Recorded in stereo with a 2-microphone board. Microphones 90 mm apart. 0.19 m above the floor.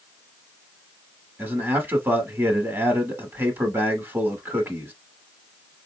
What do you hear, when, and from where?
1.4 s a man speaking: 25° right (ahead or behind), 1.1 m